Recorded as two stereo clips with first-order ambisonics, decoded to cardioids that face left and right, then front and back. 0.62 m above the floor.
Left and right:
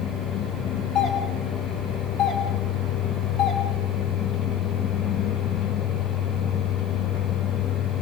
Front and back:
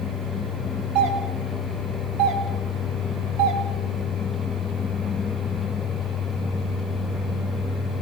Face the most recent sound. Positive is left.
turn(degrees=145)